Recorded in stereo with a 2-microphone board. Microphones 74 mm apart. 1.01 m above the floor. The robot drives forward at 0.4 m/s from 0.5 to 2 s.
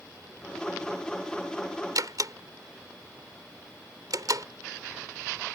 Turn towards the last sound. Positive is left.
turn(degrees=-60)  # may be behind; listen again after turning